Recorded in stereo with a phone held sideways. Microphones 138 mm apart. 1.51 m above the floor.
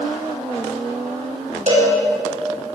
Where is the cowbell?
55° right (ahead or behind), 6 m.